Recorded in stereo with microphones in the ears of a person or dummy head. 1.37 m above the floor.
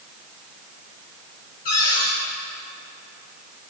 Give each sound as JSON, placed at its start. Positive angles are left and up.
{"t": 1.6, "sound": "a cupboard door", "side_deg": 45, "distance_m": 1.9}